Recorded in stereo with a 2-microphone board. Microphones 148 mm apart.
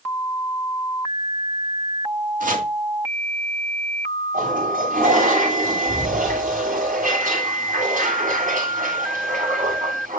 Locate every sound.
2.4 s chopping: 65° right (ahead or behind), 2.0 m
4.3 s a toilet flushing: 60° right (ahead or behind), 7 m